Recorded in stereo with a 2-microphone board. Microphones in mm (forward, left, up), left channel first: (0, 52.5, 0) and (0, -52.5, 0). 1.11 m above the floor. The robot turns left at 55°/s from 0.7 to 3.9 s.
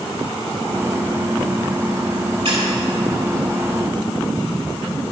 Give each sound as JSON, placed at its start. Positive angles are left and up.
{"t": 2.5, "sound": "a squeak", "side_deg": -65, "distance_m": 1.8}